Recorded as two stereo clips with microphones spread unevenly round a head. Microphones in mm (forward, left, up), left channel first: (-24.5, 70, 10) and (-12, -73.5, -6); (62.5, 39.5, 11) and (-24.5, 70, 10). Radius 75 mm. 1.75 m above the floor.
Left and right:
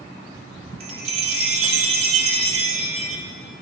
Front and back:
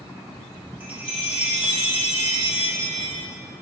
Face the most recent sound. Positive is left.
turn(degrees=-125)